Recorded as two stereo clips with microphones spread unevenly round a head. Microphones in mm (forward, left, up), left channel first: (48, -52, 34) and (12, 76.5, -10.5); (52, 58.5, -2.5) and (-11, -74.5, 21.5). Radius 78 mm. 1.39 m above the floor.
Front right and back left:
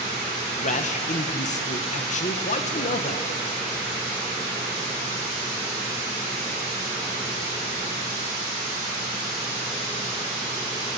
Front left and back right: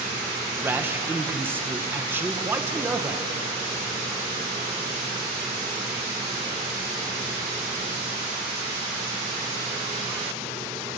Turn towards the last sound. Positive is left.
turn(degrees=-35)